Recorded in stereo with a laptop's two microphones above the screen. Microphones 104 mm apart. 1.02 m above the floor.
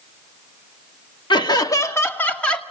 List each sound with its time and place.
1.3 s laughter: 50° left (ahead or behind), 1.6 m; by 2.6 s 10° left (ahead or behind), 1.8 m